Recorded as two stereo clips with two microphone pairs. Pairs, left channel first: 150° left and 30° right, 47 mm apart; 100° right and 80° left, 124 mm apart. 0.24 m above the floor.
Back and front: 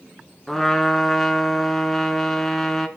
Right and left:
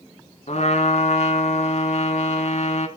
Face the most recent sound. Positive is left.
turn(degrees=-120)